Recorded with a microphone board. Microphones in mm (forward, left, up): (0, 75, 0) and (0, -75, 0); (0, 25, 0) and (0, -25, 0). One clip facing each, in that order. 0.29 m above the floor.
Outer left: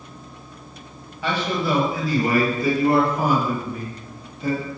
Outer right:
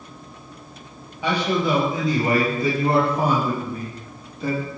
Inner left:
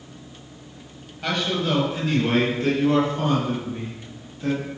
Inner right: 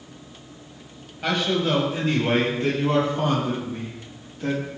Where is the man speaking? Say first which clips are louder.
Outer right 2 dB, inner right 1 dB; 15° right (ahead or behind), 6 m; by 4.7 s 40° right (ahead or behind), 10 m.